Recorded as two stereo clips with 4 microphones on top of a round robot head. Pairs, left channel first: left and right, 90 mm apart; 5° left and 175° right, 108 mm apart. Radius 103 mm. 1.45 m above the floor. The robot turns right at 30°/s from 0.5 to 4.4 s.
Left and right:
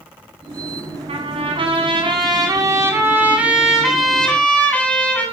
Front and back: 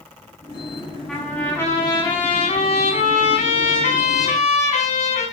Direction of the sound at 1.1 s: 85° right.